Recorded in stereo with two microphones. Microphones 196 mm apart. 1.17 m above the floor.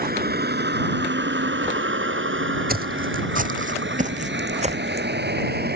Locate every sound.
0.0 s a vehicle: 50° right (ahead or behind); by 5.8 s 55° right (ahead or behind)
2.7 s footsteps: 50° right (ahead or behind); by 5.1 s 30° right (ahead or behind)